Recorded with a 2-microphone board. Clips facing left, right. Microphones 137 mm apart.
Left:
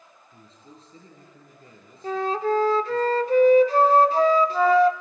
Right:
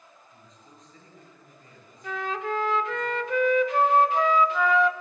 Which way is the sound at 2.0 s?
35° left (ahead or behind).